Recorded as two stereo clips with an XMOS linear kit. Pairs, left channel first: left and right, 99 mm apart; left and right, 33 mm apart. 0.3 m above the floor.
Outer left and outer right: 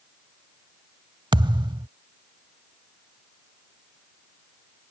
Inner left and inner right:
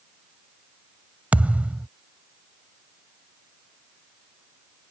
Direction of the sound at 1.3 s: 50° right (ahead or behind).